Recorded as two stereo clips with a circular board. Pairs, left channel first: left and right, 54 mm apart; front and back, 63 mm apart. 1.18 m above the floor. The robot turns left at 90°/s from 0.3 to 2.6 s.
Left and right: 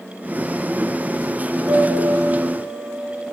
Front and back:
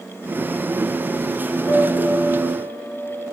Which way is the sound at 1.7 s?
40° right.